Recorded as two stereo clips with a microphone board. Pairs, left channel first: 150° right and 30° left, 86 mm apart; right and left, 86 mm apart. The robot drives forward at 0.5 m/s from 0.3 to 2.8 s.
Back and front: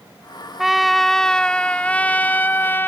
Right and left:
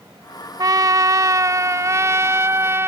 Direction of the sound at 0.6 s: 115° left.